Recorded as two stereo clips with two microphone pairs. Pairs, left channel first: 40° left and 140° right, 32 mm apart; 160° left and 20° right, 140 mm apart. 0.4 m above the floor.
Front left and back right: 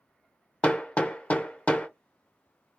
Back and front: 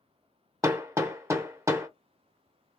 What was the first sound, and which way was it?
Hammering, 35° left.